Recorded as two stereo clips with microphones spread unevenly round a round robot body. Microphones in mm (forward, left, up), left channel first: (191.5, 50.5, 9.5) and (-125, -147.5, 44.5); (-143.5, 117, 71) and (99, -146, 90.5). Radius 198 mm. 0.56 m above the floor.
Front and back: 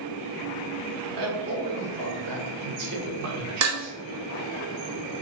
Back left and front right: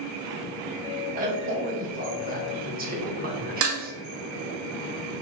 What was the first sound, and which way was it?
A man speaking, 115° right.